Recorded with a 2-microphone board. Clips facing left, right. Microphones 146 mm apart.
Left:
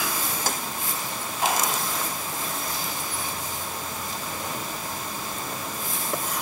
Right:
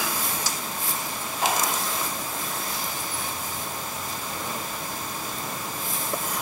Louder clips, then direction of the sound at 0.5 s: Left 4 dB; 50° left (ahead or behind).